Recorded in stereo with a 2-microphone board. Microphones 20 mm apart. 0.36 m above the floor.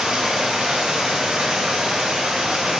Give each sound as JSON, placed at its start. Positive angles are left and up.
{"t": 0.0, "sound": "running water", "side_deg": -45, "distance_m": 3.5}